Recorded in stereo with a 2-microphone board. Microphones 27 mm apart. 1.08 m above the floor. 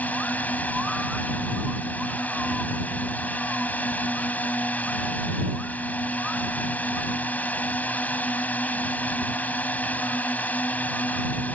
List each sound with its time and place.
0.0 s a drone: 75° left (ahead or behind)